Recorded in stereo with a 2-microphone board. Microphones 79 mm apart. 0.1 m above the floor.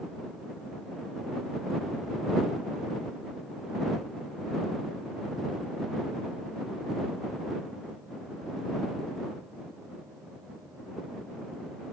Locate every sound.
Only background noise.